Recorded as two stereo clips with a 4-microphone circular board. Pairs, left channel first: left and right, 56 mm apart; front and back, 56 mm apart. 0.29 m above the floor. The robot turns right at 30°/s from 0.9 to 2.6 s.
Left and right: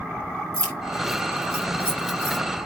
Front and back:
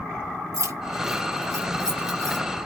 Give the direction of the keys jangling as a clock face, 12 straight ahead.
6 o'clock.